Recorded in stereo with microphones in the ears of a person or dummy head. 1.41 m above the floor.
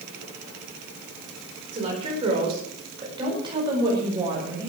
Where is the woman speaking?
40° right (ahead or behind), 5 m; by 4.7 s 25° right (ahead or behind), 6.5 m.